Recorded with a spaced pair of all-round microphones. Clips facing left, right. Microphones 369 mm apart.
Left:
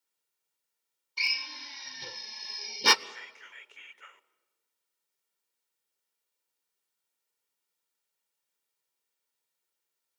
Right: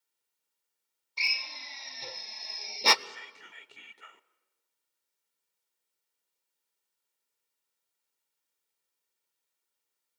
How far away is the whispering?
About 0.8 m.